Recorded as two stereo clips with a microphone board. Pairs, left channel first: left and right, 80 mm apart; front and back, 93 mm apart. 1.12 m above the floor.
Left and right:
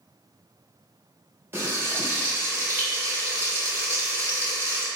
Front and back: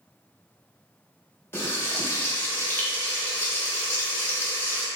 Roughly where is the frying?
Ahead right.